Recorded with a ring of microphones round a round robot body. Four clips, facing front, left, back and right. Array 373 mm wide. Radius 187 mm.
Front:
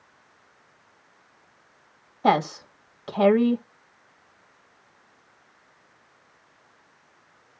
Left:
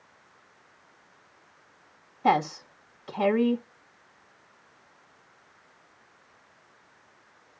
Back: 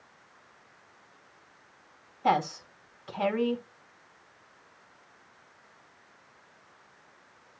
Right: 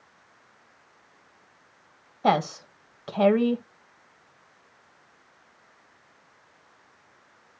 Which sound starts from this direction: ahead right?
A woman speaking, at 2.2 s.